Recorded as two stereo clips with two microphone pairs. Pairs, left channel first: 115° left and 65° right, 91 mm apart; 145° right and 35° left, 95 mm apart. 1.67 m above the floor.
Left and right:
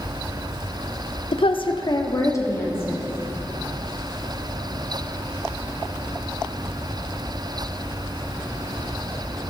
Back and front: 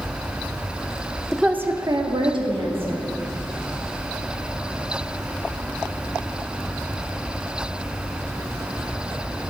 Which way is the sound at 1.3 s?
125° left.